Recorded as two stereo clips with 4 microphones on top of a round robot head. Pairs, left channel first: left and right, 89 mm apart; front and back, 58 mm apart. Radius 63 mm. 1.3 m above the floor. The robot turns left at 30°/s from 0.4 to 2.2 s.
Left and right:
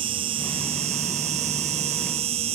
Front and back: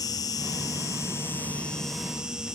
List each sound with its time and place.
0.0 s an insect: 45° right; by 2.5 s 100° right